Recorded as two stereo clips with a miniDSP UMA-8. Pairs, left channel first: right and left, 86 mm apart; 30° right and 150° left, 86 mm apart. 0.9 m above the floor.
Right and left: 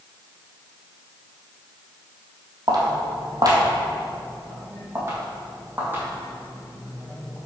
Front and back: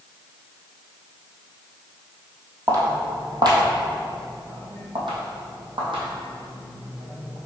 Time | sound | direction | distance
2.7 | footsteps | 110° left | 1.7 m